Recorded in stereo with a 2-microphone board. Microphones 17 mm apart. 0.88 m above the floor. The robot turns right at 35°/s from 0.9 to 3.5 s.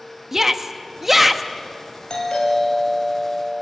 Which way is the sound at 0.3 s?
30° right (ahead or behind).